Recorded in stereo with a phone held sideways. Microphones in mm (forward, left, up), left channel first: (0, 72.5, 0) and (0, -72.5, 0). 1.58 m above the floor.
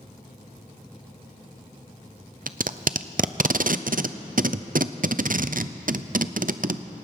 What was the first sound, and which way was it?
Tape being pulled, 65° right (ahead or behind).